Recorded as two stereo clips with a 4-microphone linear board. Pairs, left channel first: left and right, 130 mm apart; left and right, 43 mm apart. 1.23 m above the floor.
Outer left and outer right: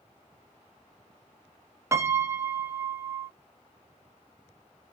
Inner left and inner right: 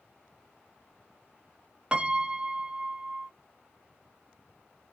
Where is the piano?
20° right (ahead or behind), 0.6 m.